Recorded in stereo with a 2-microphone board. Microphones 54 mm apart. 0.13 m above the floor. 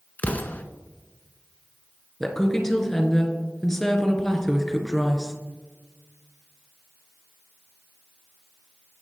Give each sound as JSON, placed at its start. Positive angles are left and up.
{"t": 0.2, "sound": "an explosion", "side_deg": 30, "distance_m": 0.8}
{"t": 2.2, "sound": "a woman speaking", "side_deg": 10, "distance_m": 1.6}